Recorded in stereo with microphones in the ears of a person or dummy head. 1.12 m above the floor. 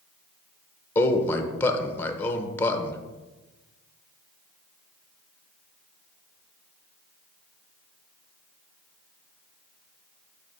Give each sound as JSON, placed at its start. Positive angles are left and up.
{"t": 0.9, "sound": "a man speaking", "side_deg": 5, "distance_m": 0.7}